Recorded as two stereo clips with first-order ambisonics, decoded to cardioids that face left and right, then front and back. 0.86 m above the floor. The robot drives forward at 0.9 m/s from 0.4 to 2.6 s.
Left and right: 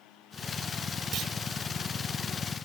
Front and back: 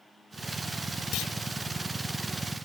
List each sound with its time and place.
1.1 s a clunk: 35° right; by 1.3 s 40° right